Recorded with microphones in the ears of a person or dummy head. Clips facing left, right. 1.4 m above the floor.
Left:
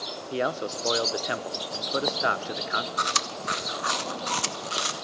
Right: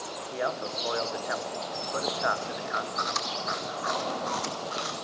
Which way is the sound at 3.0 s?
45° left (ahead or behind).